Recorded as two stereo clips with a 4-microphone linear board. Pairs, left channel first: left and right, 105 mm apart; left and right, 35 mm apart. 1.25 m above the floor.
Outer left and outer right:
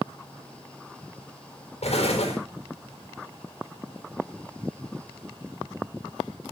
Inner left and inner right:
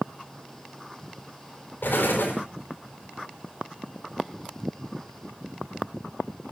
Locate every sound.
1.8 s an explosion: 80° left, 5 m